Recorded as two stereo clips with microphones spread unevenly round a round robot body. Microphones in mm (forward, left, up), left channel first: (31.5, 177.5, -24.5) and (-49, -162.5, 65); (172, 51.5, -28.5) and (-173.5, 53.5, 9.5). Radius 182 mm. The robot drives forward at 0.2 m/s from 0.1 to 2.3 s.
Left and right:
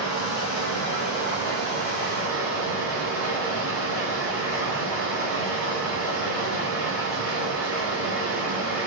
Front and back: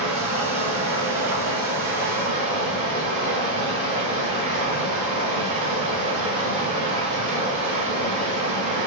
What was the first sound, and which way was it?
Running water, 125° left.